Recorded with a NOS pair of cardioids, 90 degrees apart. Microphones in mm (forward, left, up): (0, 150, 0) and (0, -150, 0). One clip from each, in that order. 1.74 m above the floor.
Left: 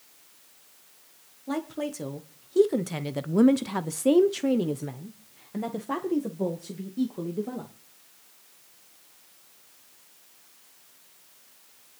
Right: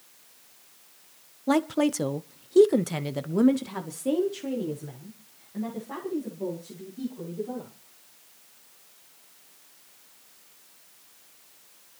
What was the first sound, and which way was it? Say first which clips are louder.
A woman speaking: right 8 dB; 50° right.